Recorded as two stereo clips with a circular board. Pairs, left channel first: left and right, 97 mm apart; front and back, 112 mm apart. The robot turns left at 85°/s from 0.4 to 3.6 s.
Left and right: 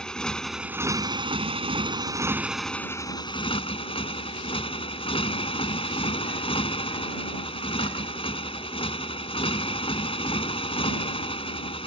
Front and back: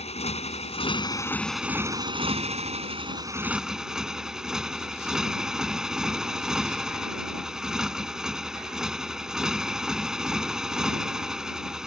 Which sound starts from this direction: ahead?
A motorcycle, at 0.0 s.